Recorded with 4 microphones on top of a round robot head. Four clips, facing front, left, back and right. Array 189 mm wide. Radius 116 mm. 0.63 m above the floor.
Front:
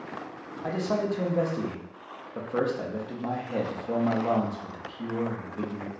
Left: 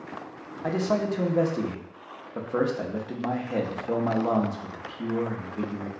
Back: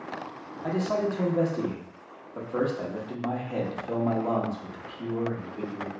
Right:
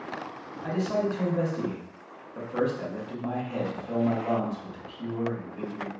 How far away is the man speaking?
About 0.9 m.